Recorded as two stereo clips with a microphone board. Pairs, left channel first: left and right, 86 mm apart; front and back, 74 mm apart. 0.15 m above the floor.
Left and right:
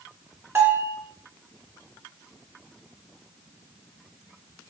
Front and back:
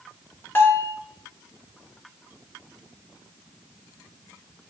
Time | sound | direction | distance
0.6 | a bell | 45° right | 0.7 m